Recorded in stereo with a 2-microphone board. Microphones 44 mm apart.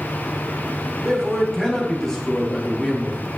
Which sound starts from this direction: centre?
A man speaking, at 1.0 s.